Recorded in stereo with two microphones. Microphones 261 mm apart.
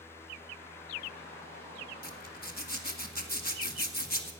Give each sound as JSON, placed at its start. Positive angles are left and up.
{"t": 2.0, "sound": "a zipper", "side_deg": 35, "distance_m": 1.4}